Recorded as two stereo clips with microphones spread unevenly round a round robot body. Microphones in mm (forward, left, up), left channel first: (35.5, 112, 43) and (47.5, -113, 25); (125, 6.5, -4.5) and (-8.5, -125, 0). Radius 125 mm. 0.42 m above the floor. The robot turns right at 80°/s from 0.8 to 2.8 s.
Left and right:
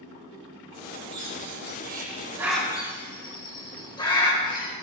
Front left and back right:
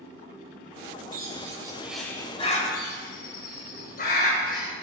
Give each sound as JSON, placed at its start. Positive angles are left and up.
{"t": 1.1, "sound": "a bird", "azimuth_deg": -115, "distance_m": 2.0}